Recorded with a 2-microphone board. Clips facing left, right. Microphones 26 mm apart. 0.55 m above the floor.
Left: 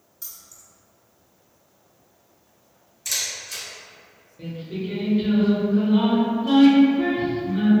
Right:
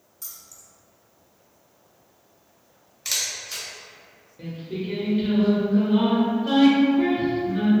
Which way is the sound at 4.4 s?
10° right (ahead or behind).